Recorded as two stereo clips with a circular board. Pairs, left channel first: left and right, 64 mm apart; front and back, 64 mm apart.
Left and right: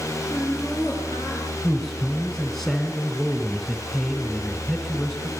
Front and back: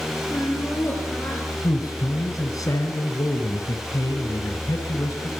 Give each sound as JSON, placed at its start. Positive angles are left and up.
{"t": 0.3, "sound": "laughter", "azimuth_deg": 65, "distance_m": 9.0}
{"t": 1.6, "sound": "a man speaking", "azimuth_deg": 10, "distance_m": 2.5}